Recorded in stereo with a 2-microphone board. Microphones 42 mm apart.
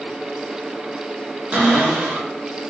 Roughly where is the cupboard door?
Right.